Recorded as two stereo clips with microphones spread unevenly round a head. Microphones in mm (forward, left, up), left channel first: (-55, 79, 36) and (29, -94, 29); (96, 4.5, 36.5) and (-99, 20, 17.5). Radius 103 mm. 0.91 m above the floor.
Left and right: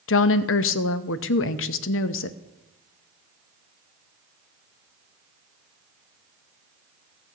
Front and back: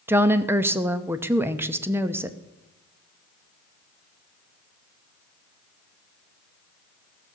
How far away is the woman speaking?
About 0.7 m.